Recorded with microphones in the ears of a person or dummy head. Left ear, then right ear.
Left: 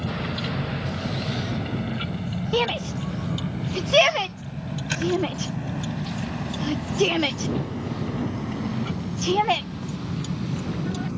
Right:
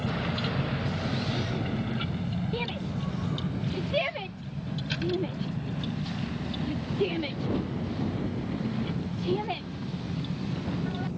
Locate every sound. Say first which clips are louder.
0.0 s a vehicle: left 2 dB; 5° right (ahead or behind); by 11.2 s 55° left (ahead or behind)
2.5 s a shout: left 12 dB; 45° left (ahead or behind)